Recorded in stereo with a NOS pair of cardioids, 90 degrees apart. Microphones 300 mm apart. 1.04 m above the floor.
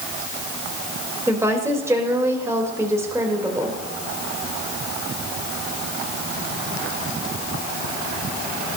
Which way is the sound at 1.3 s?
10° right.